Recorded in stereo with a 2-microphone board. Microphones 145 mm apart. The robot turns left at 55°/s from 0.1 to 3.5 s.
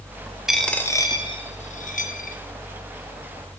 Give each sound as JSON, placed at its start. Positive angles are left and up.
{"t": 0.5, "sound": "a dropped coin", "side_deg": -5, "distance_m": 0.5}